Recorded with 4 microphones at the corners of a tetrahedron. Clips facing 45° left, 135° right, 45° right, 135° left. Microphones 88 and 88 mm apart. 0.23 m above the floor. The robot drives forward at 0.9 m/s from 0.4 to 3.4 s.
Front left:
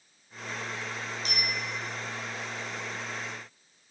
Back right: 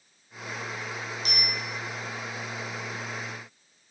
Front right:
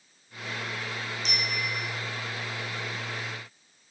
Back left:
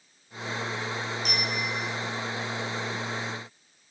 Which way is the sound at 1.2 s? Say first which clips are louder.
Front left 1 dB, front right 1 dB; 100° left.